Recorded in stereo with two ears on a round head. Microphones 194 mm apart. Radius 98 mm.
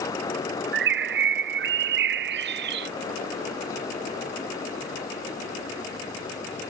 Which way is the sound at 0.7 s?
50° right (ahead or behind).